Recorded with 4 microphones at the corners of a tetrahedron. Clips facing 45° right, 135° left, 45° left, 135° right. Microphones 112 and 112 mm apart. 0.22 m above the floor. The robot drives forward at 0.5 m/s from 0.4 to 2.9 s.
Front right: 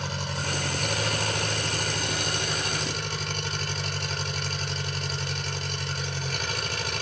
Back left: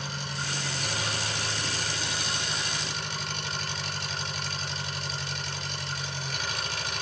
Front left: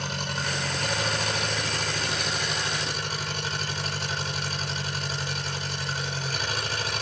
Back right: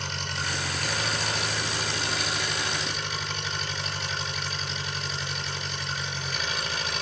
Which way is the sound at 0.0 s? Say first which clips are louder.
Front right 4 dB, front left 2 dB; 5° right.